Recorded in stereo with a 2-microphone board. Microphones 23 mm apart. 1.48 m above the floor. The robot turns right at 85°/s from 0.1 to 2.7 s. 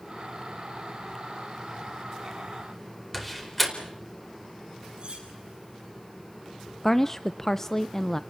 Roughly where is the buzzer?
No buzzer in this recording.